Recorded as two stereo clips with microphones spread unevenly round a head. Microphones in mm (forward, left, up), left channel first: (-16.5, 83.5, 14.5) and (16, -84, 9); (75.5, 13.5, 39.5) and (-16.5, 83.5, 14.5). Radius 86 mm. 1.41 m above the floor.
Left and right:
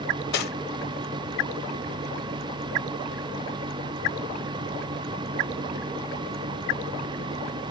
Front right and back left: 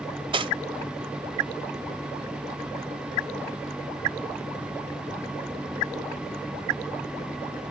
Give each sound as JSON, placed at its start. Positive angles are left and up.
{"t": 0.3, "sound": "cutlery clinking", "azimuth_deg": 90, "distance_m": 0.8}